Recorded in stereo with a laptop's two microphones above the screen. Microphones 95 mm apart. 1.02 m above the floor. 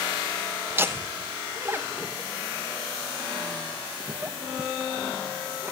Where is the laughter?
25° right (ahead or behind), 1.1 m.